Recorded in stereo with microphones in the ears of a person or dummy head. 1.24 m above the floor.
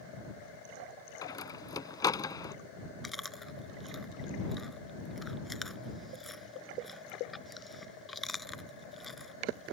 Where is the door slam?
20° left (ahead or behind).